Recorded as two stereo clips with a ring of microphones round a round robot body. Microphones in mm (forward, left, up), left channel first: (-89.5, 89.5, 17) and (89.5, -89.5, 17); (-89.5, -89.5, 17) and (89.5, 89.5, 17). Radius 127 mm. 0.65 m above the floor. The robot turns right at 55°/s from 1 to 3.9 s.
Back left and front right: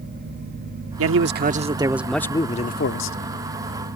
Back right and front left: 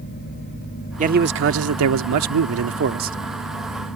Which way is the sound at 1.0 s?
15° right.